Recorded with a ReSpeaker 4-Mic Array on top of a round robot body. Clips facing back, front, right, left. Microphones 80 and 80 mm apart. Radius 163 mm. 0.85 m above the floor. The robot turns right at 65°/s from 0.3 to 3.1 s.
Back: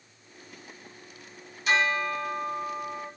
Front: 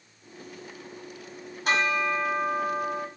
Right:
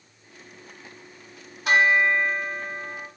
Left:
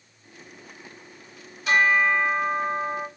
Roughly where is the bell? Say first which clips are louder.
Front 1 dB, right 1 dB; ahead right.